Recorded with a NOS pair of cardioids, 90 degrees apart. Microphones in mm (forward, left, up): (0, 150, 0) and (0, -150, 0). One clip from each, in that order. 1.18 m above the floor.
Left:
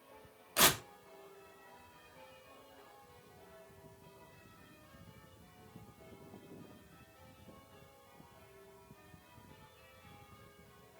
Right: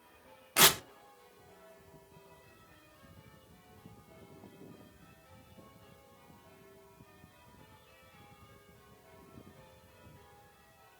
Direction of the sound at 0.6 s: 25° right.